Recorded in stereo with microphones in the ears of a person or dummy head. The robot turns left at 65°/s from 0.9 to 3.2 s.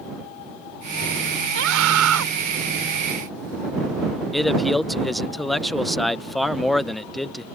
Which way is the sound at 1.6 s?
60° right.